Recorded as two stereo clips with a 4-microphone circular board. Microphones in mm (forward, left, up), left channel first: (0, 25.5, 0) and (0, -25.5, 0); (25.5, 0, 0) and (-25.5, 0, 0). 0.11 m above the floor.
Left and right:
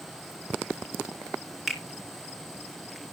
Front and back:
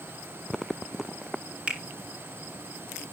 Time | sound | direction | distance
1.7 | a finger snap | 165° right | 1.6 m